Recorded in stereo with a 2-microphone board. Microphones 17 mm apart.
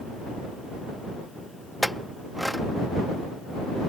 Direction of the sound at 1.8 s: 10° left (ahead or behind).